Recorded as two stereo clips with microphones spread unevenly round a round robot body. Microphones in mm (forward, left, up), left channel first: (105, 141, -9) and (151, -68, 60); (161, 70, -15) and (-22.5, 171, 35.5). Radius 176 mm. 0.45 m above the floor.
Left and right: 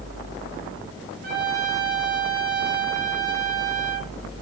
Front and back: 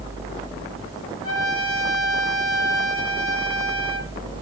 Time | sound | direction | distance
1.2 | a trumpet | 30° right | 8 m